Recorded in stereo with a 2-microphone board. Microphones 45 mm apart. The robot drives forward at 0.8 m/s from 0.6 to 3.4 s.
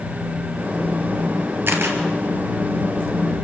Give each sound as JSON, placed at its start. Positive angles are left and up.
{"t": 1.7, "sound": "a camera shutter", "side_deg": -55, "distance_m": 3.0}